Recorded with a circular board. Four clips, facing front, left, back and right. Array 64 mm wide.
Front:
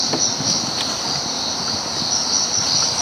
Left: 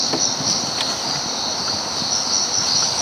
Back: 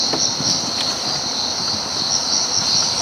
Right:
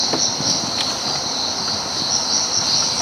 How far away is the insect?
About 0.9 m.